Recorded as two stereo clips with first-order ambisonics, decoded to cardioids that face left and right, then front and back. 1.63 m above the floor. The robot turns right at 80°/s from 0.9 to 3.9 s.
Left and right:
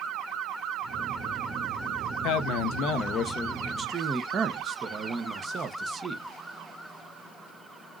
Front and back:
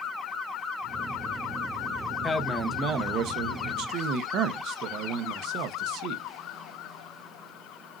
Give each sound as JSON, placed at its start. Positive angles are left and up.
{"t": 2.2, "sound": "a man speaking", "azimuth_deg": 75, "distance_m": 0.8}